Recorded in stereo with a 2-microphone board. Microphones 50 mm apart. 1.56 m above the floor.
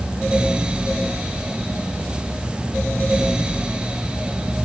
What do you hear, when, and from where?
Only background noise.